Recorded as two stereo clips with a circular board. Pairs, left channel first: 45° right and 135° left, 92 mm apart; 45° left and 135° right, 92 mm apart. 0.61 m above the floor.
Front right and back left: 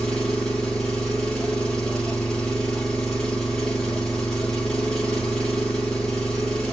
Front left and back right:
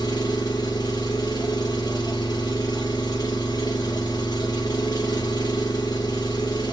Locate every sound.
0.0 s an engine running: 35° left, 0.9 m